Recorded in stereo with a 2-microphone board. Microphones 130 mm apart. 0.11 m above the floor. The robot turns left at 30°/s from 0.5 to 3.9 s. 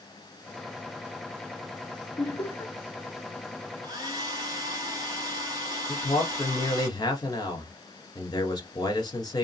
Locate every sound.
2.2 s laughter: 25° left (ahead or behind), 1.9 m
3.8 s a hair dryer: 30° right (ahead or behind), 1.3 m
5.9 s a man speaking: 30° left (ahead or behind), 1.4 m